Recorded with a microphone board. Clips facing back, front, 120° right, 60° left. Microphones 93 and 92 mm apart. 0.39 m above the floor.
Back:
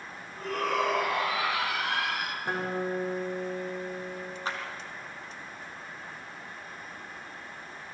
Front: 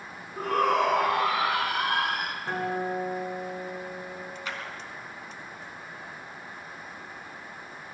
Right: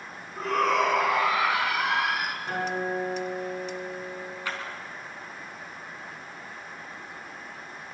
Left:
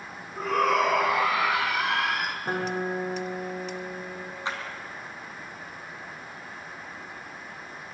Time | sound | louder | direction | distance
0.4 | a shout | front 5 dB, left 1 dB | 20° right | 4.5 m
2.5 | a guitar | front 1 dB, left 1 dB | 105° left | 6.5 m
4.5 | a clap | back 3 dB, left 2 dB | 125° left | 4 m